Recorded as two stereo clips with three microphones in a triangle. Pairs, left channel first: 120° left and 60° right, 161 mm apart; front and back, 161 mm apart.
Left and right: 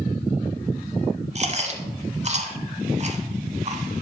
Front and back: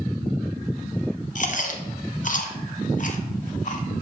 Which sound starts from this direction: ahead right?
Chewing, at 1.4 s.